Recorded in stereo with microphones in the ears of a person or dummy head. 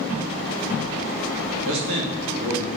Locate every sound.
1.6 s a man speaking: 80° right, 3 m; by 2.7 s 75° right (ahead or behind), 3.5 m